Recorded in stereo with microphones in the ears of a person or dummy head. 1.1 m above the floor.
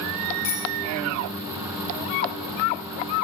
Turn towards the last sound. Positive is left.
turn(degrees=35)  # may be behind; listen again after turning